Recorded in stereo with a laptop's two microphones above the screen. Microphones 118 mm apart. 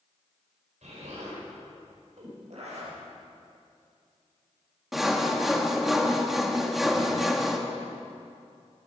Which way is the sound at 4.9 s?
Centre (ahead or behind).